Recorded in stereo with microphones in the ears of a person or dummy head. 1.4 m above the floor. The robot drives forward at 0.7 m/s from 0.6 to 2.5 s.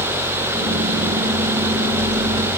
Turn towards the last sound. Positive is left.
No sound to turn to.